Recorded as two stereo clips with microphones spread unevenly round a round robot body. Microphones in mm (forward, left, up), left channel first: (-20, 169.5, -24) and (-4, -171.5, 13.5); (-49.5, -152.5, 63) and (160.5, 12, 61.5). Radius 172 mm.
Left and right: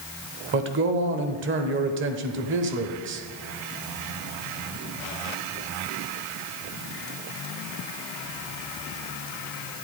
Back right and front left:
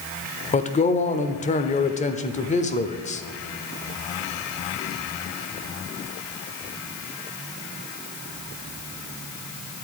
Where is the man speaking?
115° right, 0.9 m.